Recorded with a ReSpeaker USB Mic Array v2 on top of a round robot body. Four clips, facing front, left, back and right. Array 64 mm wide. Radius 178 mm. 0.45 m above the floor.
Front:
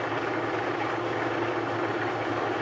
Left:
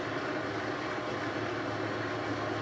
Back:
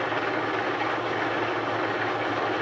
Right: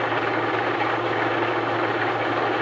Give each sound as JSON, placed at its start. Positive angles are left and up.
{"t": 0.0, "sound": "an engine running", "azimuth_deg": -100, "distance_m": 1.1}